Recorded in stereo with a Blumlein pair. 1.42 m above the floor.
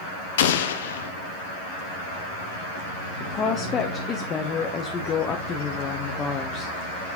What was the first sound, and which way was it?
An explosion, 60° left.